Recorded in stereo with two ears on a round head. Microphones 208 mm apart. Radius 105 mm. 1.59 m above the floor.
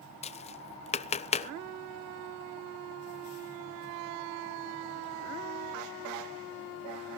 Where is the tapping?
30° left (ahead or behind), 0.6 m.